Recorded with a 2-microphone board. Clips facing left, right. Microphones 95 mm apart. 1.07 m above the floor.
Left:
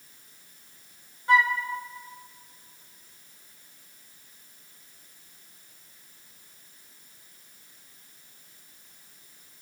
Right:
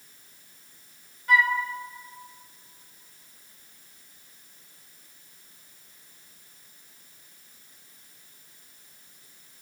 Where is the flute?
25° left (ahead or behind), 2 m.